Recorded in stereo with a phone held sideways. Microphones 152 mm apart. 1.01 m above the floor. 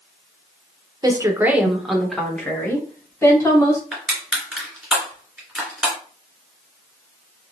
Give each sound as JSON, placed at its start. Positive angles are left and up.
{"t": 1.0, "sound": "a woman speaking", "side_deg": -25, "distance_m": 0.7}
{"t": 3.9, "sound": "crushing", "side_deg": 0, "distance_m": 2.0}